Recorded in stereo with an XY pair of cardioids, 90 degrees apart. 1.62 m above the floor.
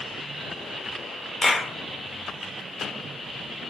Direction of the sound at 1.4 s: 30° left.